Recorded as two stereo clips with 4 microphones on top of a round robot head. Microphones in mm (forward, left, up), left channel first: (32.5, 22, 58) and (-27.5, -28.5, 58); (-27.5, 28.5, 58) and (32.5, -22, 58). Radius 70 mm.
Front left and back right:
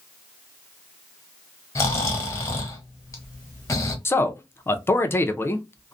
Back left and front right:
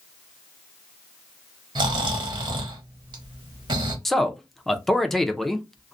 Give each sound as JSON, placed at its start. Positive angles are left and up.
{"t": 1.8, "sound": "snoring", "azimuth_deg": -10, "distance_m": 1.0}
{"t": 4.0, "sound": "a man speaking", "azimuth_deg": 55, "distance_m": 0.6}